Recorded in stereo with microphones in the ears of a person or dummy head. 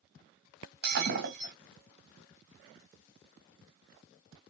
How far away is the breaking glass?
About 2 m.